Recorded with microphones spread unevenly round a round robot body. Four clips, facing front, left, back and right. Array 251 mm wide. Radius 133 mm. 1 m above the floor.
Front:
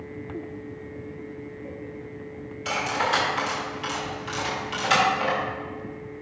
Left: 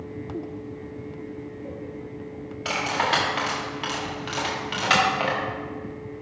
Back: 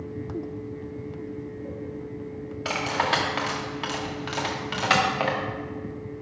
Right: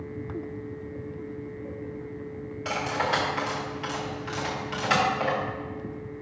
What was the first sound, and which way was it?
Cutlery clinking, 145° left.